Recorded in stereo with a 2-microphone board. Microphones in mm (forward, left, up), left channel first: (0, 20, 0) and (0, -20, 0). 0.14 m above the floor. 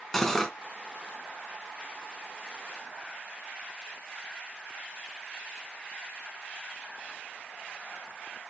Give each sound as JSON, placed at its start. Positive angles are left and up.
{"t": 0.1, "sound": "cutlery clinking", "side_deg": 5, "distance_m": 0.7}